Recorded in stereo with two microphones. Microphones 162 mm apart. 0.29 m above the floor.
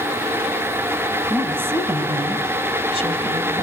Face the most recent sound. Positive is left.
turn(degrees=-45)  # may be behind; listen again after turning